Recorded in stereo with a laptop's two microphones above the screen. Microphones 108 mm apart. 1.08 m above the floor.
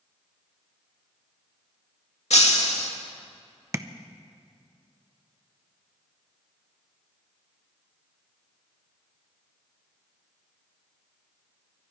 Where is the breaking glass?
70° left (ahead or behind), 1.4 m.